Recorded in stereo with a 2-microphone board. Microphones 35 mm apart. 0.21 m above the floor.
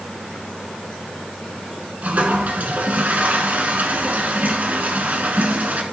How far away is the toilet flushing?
About 1.7 m.